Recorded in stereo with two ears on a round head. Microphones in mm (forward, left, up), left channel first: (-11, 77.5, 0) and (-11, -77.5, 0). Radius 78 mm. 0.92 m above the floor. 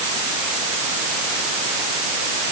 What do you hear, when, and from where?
Only background noise.